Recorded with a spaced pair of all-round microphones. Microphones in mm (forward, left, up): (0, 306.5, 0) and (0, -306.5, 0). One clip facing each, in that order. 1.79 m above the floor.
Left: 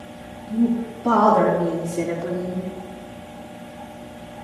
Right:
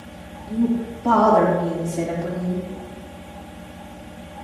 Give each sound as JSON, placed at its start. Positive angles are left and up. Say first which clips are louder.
{"t": 0.5, "sound": "a woman speaking", "louder": "left 1 dB", "side_deg": 5, "distance_m": 3.5}